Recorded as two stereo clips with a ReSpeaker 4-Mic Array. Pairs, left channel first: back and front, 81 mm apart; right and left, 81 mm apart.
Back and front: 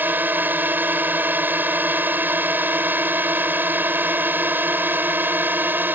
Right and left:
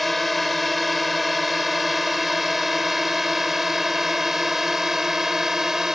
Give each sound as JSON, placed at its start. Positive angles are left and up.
{"t": 0.0, "sound": "a drone", "azimuth_deg": 0}